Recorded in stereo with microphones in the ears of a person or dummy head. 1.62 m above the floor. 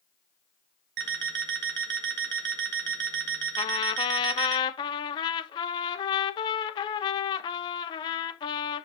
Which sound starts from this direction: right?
An alarm clock, at 1.0 s.